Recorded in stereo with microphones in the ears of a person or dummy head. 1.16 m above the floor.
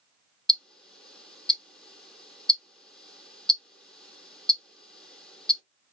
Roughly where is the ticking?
Centre.